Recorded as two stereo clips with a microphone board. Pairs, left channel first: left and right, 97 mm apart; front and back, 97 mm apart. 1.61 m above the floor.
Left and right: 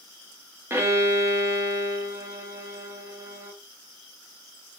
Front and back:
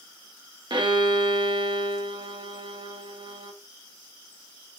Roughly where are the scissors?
I don't hear scissors.